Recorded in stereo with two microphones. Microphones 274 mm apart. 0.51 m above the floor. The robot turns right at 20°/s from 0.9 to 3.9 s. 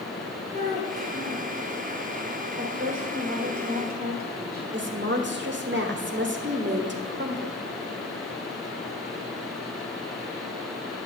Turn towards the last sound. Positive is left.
turn(degrees=-45)  # may be behind; listen again after turning